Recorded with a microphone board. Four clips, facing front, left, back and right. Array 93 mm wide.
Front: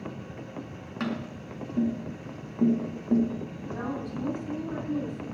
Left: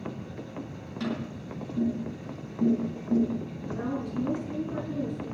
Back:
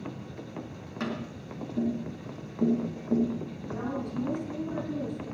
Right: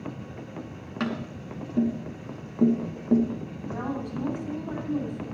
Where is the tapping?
75° right, 3 m.